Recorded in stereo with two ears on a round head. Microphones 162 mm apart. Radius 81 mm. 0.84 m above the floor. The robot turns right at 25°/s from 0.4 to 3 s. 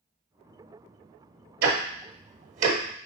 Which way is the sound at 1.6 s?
55° right (ahead or behind).